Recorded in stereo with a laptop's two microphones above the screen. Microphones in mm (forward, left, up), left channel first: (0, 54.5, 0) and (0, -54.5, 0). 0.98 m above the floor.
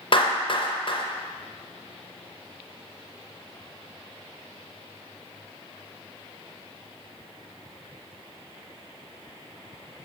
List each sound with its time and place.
0.1 s a clap: 50° left (ahead or behind), 0.6 m